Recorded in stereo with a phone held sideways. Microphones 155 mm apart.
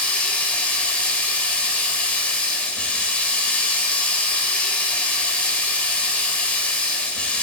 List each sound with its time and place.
0.0 s running water: 10° left (ahead or behind), 1.5 m